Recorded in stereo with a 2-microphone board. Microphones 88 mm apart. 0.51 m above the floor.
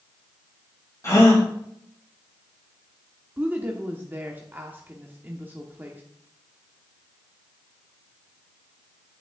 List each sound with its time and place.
1.0 s a gasp: 35° left (ahead or behind), 3.5 m
3.4 s a woman speaking: 20° right (ahead or behind), 0.8 m